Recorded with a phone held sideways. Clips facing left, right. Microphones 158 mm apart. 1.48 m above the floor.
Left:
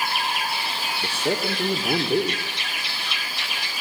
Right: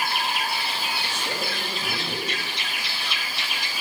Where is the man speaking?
70° left (ahead or behind), 1.7 m.